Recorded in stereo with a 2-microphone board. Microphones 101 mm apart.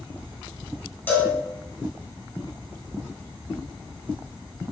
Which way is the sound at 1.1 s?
20° left (ahead or behind).